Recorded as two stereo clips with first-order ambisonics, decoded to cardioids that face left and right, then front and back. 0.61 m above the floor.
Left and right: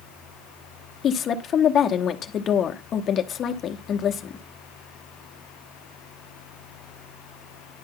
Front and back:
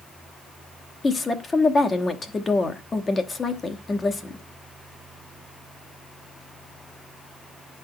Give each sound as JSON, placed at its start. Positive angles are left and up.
{"t": 1.0, "sound": "a woman speaking", "azimuth_deg": 65, "distance_m": 0.9}